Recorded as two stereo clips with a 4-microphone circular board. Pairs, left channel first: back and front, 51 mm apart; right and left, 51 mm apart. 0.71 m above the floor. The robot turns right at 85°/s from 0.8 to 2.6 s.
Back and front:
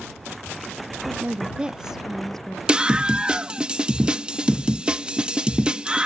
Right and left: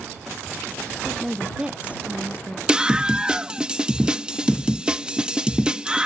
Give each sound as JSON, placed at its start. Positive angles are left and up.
{"t": 1.1, "sound": "a woman speaking", "azimuth_deg": -10}
{"t": 2.7, "sound": "a scream", "azimuth_deg": 40}